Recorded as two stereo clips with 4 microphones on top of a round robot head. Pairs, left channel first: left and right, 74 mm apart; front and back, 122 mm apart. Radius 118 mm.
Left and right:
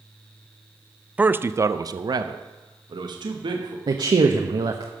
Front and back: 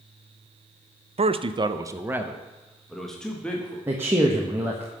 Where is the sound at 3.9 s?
105° right, 1.0 m.